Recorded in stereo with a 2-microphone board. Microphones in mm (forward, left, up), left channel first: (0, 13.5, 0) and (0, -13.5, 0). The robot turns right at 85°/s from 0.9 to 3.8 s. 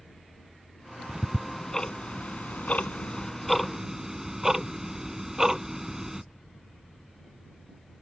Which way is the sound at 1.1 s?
30° right (ahead or behind).